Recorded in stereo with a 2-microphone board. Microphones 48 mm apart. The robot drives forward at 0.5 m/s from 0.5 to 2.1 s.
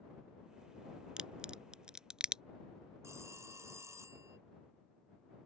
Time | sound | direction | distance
1.2 | a crack | 20° right (ahead or behind) | ?
3.0 | a phone ringing | 75° right (ahead or behind) | ?